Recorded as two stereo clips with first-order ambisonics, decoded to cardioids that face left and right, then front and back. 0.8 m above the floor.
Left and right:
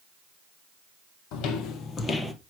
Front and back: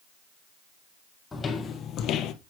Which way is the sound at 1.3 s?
80° left.